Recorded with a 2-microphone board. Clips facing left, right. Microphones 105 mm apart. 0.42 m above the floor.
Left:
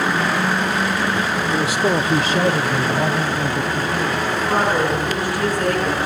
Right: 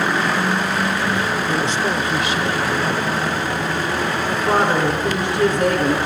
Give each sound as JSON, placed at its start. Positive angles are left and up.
{"t": 1.5, "sound": "a man speaking", "side_deg": -5, "distance_m": 0.7}
{"t": 4.3, "sound": "a woman speaking", "side_deg": -25, "distance_m": 5.0}